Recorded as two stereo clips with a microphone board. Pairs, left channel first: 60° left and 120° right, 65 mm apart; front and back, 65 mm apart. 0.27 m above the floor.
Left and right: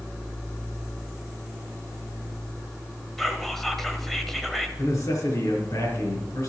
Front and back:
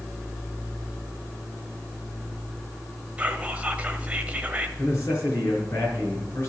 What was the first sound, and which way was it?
Whispering, 140° left.